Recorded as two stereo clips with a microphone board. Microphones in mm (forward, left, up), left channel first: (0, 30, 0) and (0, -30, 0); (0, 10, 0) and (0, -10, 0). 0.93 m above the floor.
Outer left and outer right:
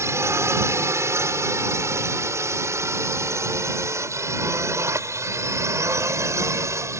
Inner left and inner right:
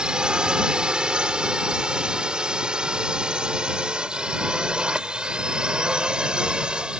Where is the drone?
50° right (ahead or behind); by 7.0 s 55° right (ahead or behind).